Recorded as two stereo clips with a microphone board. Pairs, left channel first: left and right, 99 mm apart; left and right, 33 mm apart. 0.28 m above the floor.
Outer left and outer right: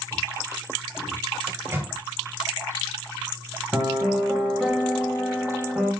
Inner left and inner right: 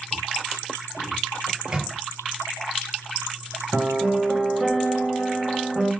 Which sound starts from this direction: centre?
A piano, at 3.7 s.